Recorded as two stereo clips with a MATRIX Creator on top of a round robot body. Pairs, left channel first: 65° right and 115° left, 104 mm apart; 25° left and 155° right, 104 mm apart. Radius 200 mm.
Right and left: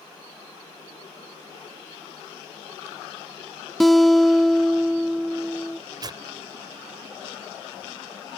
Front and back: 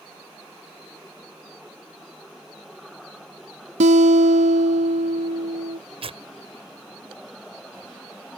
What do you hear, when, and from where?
3.8 s a guitar: 155° right
6.0 s tearing paper: 165° left